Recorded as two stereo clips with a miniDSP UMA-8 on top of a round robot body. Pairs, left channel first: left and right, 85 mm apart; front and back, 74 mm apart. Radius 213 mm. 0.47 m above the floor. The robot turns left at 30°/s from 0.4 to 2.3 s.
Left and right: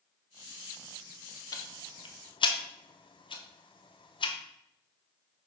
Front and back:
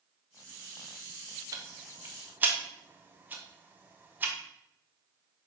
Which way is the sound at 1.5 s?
135° left.